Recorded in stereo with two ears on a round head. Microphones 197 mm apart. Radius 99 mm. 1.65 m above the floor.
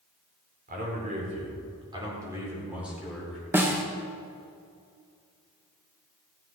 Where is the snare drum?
10° right (ahead or behind), 1.3 m.